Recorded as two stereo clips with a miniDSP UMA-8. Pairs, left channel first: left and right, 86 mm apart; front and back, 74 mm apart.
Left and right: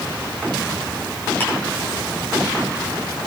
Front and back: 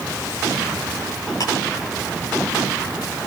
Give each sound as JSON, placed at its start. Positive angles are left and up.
{"t": 1.4, "sound": "ticking", "azimuth_deg": 25, "distance_m": 7.5}